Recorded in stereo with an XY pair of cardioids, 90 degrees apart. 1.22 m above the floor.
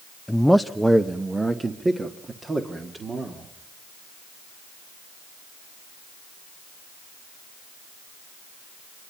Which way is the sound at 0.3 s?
5° left.